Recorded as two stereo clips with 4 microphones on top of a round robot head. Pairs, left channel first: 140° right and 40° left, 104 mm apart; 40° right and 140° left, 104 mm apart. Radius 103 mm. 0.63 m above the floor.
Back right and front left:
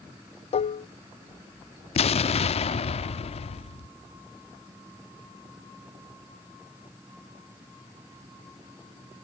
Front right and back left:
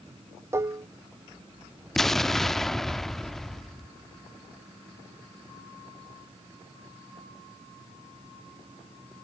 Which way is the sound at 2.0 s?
125° right.